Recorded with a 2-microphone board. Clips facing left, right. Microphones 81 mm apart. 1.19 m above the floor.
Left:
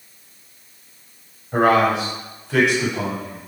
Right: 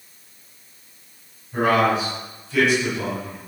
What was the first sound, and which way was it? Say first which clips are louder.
A man speaking: left 3 dB; 80° left.